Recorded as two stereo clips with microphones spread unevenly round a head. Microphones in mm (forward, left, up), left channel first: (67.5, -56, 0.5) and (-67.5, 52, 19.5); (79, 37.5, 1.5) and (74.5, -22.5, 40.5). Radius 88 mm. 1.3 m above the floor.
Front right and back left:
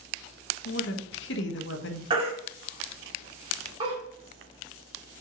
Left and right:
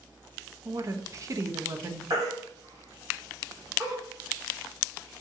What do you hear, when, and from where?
0.7 s a woman speaking: 65° right, 1.4 m
2.1 s a baby crying: 160° right, 2.5 m